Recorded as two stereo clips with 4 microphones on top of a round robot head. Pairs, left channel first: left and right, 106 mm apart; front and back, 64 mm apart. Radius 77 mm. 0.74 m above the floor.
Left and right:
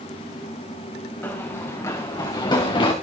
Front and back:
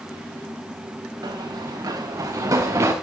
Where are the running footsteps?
160° left, 3.5 m; by 2.9 s 130° left, 3.5 m.